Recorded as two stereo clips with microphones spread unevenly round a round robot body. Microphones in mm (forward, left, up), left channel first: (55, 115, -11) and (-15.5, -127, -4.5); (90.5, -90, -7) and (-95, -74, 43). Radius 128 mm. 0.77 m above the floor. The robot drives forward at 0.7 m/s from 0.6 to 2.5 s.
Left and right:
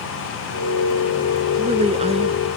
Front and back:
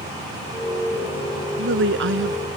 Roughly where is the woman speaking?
Behind.